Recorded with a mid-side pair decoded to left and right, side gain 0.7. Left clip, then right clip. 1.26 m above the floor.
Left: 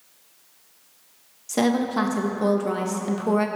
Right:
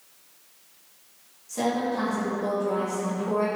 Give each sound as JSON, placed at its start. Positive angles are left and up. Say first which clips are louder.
{"t": 1.5, "sound": "a woman speaking", "louder": "left 3 dB", "azimuth_deg": 55, "distance_m": 1.6}